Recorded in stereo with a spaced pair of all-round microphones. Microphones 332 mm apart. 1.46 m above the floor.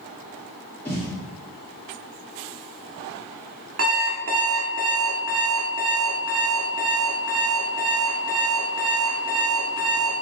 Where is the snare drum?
5° left (ahead or behind), 1.6 m.